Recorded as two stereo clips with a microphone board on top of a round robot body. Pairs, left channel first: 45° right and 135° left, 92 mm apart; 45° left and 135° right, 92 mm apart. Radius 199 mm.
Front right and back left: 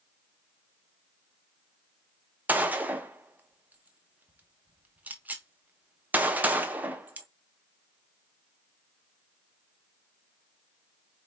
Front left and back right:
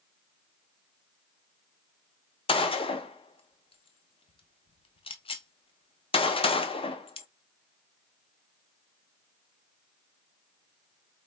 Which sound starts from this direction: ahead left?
A gunshot, at 2.5 s.